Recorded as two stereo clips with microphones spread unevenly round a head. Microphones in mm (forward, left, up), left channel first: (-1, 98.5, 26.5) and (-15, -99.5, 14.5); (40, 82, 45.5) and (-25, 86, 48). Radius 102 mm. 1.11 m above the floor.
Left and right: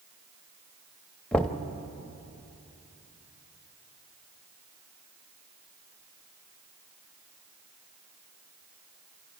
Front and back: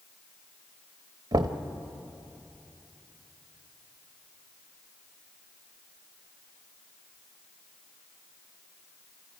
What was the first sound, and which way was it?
Knocking, 170° left.